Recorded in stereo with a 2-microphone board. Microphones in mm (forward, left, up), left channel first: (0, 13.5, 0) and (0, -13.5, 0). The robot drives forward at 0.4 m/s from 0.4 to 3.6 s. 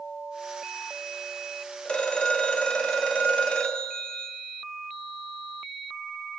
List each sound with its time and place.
1.9 s a phone ringing: 40° left (ahead or behind), 1.7 m; by 4.3 s 45° left (ahead or behind), 1.5 m